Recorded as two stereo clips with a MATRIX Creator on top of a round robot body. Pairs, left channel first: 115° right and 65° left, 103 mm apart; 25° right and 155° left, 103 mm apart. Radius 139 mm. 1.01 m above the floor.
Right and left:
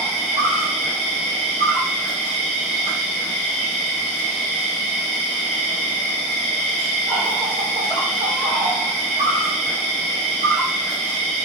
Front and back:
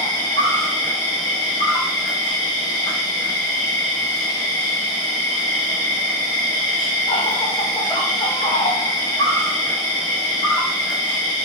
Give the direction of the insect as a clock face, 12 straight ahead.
11 o'clock.